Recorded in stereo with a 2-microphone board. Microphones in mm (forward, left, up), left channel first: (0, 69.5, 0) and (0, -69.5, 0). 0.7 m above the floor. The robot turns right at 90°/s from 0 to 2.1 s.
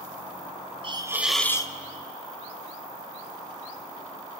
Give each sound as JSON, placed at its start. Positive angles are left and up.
{"t": 0.8, "sound": "a hiss", "azimuth_deg": -45, "distance_m": 1.2}